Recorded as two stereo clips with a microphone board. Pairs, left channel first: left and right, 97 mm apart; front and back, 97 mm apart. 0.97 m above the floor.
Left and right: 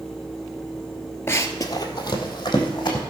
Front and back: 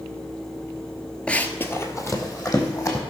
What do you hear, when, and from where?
1.3 s running footsteps: 70° left, 1.0 m; by 3.0 s 55° left, 3 m